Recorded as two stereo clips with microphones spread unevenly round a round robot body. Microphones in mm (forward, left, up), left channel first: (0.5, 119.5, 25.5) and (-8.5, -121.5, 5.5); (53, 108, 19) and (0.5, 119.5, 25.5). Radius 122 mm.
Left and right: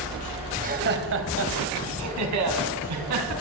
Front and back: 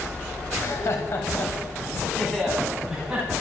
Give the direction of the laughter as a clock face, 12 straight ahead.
1 o'clock.